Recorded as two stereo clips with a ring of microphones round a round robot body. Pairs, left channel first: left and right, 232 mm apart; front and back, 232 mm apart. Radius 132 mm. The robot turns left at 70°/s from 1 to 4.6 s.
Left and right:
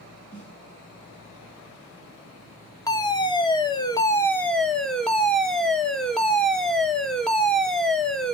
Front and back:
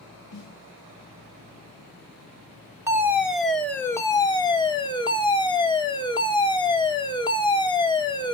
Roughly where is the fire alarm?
Behind left.